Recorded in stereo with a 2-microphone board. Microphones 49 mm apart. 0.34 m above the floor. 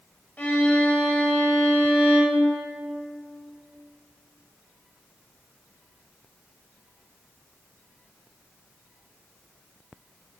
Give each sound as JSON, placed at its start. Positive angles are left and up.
{"t": 0.4, "sound": "a violin", "side_deg": 35, "distance_m": 1.3}